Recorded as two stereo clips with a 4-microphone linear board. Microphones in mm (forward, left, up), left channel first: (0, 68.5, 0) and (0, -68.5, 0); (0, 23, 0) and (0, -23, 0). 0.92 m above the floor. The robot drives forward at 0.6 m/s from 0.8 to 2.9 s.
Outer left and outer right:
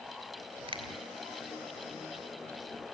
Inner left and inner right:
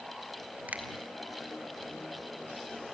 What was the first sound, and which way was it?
A finger snap, 45° right (ahead or behind).